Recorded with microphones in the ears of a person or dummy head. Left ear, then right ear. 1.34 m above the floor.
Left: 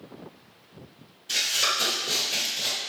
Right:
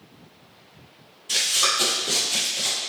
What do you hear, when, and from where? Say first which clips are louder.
1.3 s running footsteps: right 3 dB; centre (ahead or behind), 1.8 m; by 2.8 s 15° right (ahead or behind), 1.4 m